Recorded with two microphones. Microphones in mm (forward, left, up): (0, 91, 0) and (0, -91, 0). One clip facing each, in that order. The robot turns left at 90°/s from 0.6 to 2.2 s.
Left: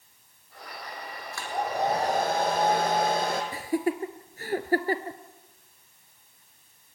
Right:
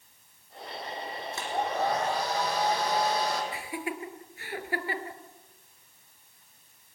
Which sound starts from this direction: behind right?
A hair dryer, at 1.3 s.